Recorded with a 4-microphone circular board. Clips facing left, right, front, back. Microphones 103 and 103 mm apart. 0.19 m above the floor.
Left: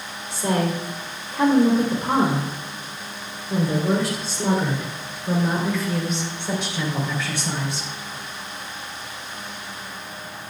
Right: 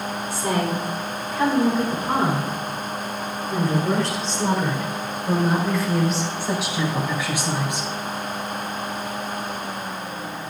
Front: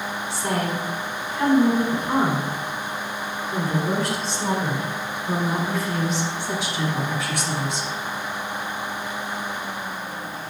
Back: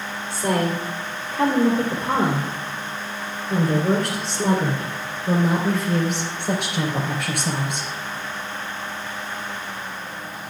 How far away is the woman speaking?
About 6 m.